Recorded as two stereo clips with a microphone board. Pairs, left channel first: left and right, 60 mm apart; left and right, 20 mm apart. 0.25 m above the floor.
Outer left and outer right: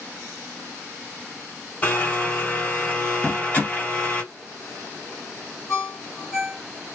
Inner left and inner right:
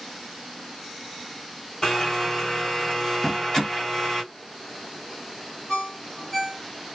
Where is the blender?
30° left (ahead or behind), 1.9 m.